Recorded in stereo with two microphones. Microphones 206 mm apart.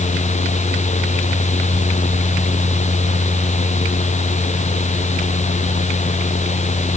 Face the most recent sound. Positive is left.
No sound to turn to.